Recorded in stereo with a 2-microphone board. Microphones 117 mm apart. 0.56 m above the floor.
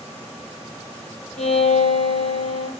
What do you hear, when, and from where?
1.4 s a violin: 85° left, 7 m